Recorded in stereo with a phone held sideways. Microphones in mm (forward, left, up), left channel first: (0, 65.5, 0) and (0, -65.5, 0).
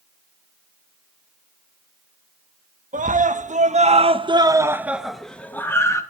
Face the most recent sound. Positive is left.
turn(degrees=25)  # may be behind; listen again after turning